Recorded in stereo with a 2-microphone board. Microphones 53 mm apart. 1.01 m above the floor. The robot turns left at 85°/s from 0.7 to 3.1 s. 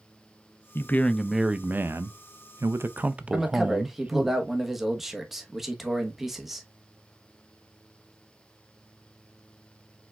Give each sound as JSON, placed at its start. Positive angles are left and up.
{"t": 0.8, "sound": "a man speaking", "azimuth_deg": 45, "distance_m": 0.5}
{"t": 3.3, "sound": "a man speaking", "side_deg": -5, "distance_m": 1.1}